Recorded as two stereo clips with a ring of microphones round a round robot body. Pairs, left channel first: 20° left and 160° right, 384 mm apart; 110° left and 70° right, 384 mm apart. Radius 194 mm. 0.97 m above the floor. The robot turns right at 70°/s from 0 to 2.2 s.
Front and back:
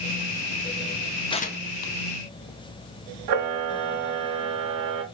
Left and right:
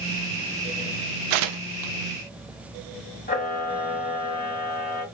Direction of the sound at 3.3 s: 175° left.